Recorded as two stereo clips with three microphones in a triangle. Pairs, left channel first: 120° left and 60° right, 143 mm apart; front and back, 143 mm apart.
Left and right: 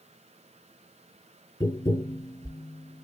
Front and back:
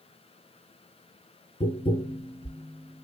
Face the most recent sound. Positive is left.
turn(degrees=50)